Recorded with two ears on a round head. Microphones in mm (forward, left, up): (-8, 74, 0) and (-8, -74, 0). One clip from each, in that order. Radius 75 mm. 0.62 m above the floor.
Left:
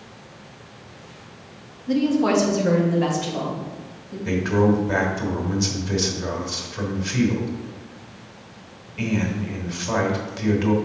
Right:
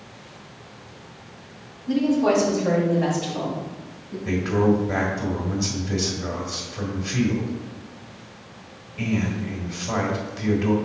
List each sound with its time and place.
1.9 s a woman speaking: 10° left (ahead or behind), 1.0 m; by 4.2 s 30° left (ahead or behind), 3.5 m
4.2 s a man speaking: 25° left (ahead or behind), 1.3 m